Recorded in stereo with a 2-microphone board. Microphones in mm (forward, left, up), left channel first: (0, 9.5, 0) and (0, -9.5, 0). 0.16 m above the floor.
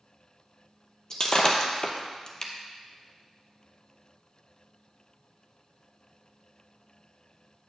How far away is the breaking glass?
About 0.9 m.